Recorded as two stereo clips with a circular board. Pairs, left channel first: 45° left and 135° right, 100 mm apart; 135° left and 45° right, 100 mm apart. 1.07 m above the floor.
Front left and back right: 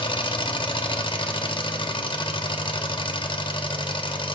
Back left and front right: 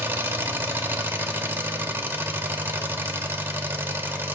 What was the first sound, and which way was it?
An engine running, 20° left.